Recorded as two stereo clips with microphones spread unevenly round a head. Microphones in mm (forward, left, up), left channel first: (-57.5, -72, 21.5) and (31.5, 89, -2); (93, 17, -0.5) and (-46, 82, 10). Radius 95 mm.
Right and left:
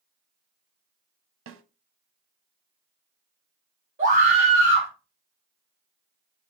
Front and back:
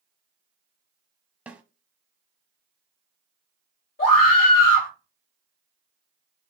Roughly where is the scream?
Ahead.